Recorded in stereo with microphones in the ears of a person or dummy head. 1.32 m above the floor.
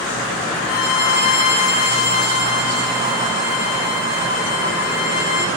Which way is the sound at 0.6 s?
35° left (ahead or behind).